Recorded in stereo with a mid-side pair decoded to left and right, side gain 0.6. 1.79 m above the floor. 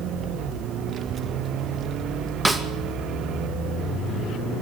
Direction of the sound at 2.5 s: 5° right.